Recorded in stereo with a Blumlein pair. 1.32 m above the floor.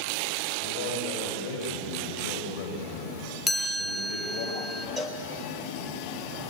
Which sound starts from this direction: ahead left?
A man speaking, at 0.6 s.